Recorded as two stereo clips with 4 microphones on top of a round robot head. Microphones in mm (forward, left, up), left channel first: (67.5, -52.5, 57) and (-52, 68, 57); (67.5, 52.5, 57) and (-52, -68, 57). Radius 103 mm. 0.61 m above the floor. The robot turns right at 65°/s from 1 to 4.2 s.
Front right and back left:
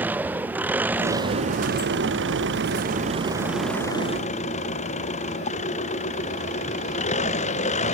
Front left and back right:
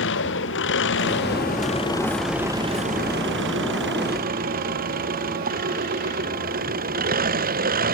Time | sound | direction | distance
0.0 | an engine running | 55° left | ?